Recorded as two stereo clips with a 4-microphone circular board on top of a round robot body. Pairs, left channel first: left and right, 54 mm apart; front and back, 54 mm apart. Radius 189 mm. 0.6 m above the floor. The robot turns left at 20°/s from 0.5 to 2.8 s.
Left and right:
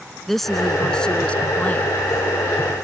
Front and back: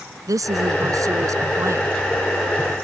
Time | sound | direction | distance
0.3 | a woman speaking | 175° left | ?